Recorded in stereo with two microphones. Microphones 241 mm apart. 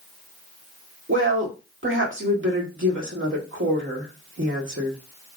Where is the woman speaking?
55° right (ahead or behind), 1.6 m.